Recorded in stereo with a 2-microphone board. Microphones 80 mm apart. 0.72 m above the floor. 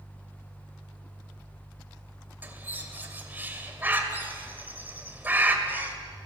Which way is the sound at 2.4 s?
25° right (ahead or behind).